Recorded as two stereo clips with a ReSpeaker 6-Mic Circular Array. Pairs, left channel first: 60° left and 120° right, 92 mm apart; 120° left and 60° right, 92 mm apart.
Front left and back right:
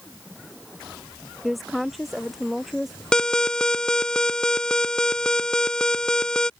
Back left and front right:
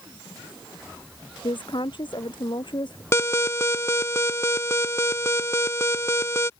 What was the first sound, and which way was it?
A woman speaking, 150° left.